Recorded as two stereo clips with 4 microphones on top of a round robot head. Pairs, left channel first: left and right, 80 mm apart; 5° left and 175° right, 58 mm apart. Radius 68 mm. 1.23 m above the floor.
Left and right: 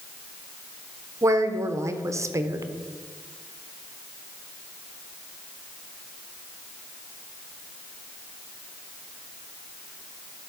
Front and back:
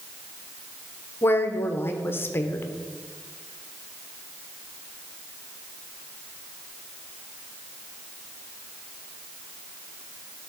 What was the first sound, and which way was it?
A woman speaking, 45° right.